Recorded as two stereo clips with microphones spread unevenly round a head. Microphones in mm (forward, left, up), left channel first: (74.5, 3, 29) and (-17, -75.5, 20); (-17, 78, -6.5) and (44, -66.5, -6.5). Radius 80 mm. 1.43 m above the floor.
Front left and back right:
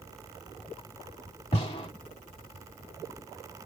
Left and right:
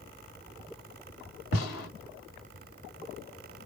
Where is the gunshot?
100° left, 2.5 m.